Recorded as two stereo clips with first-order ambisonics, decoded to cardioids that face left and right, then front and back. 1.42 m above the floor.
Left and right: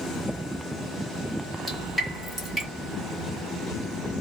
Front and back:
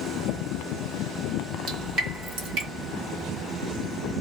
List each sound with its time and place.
1.7 s dripping: 175° left, 1.7 m